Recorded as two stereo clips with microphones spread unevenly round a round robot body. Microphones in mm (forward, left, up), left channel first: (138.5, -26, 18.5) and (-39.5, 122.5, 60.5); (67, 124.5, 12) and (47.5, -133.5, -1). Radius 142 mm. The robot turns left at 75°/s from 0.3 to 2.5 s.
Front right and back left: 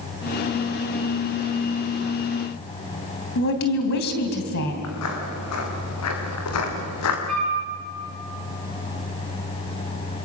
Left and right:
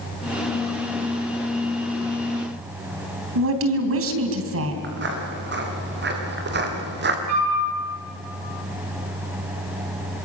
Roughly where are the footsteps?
Ahead right.